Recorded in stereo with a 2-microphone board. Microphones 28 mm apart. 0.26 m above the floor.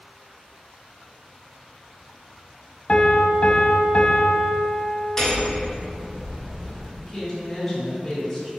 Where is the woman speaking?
Centre (ahead or behind), 2.0 m.